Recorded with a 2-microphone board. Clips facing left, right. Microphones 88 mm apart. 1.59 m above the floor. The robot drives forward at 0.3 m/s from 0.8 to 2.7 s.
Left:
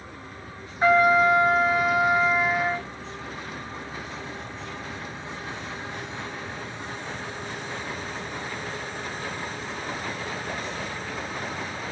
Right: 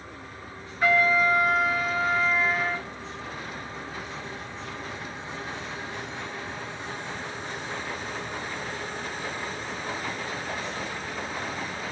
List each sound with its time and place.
0.8 s a trumpet: 25° left (ahead or behind), 0.9 m